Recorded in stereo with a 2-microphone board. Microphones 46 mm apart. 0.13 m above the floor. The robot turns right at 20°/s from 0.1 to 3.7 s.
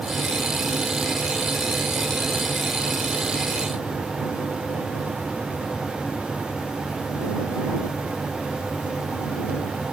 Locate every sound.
Only background noise.